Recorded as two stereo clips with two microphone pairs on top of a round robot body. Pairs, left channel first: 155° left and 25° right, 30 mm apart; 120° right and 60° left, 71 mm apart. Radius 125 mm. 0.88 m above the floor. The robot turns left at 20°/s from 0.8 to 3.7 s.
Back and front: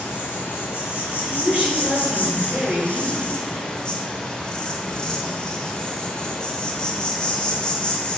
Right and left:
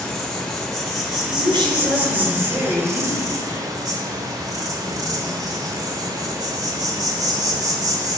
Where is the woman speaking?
55° left, 2.5 m; by 3.3 s 15° left, 2.5 m.